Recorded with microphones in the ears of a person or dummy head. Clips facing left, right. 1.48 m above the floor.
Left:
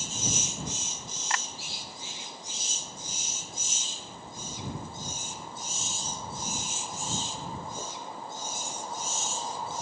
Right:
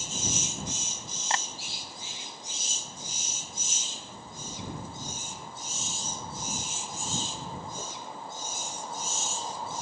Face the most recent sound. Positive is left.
turn(degrees=-30)  # may be behind; listen again after turning